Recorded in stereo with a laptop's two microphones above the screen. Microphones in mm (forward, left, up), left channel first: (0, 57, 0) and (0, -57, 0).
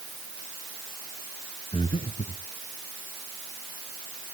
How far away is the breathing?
About 1.8 m.